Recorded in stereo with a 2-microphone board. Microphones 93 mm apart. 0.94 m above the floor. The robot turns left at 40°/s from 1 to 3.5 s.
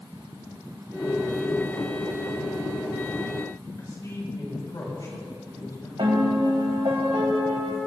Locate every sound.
3.8 s a man speaking: 40° left (ahead or behind), 5.5 m
6.0 s a piano: 80° right, 2 m